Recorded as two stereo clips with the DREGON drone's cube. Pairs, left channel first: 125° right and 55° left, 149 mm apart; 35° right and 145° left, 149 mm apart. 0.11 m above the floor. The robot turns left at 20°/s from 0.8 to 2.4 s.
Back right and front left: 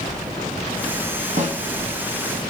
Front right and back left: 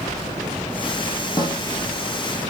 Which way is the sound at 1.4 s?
25° left.